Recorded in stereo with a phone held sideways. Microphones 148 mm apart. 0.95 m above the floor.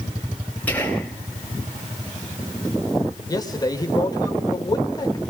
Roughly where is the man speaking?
Left.